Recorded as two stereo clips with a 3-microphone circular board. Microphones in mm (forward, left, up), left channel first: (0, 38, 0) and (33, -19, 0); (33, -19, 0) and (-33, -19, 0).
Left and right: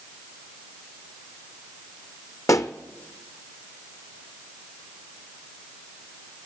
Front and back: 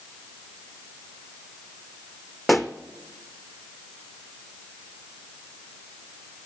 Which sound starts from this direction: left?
A pop, at 2.5 s.